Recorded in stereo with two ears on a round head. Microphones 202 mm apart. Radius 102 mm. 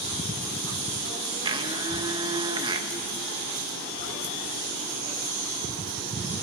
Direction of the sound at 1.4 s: 20° right (ahead or behind).